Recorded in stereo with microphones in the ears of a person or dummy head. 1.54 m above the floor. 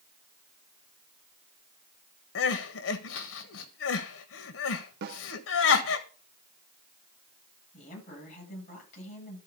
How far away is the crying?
About 1.3 m.